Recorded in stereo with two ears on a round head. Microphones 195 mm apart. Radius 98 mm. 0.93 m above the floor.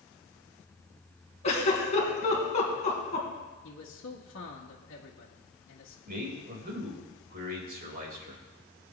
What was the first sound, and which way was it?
A giggle, 35° left (ahead or behind).